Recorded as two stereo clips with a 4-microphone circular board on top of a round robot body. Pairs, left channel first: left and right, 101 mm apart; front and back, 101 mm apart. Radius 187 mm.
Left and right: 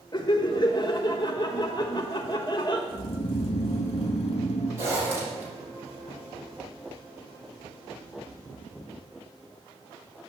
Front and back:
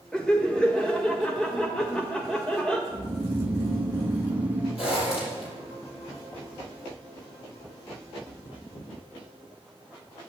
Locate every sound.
0.1 s laughter: 80° left, 1.4 m
2.9 s snoring: 105° left, 1.1 m
4.8 s a zipper: 25° right, 6 m